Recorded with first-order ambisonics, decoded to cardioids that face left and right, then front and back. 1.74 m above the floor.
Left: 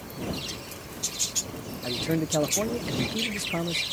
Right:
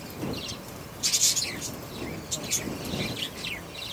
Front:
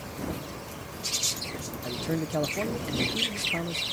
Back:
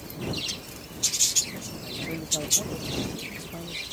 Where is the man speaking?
65° left.